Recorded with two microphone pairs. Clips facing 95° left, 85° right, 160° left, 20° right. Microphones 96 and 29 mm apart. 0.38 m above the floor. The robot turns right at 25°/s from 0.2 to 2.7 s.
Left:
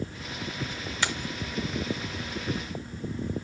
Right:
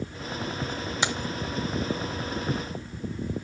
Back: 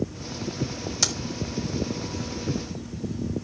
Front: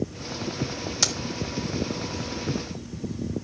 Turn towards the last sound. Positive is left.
turn(degrees=-60)